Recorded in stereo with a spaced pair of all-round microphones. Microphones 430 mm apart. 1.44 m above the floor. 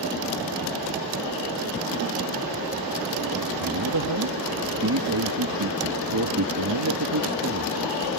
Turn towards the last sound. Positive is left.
turn(degrees=-50)  # may be behind; listen again after turning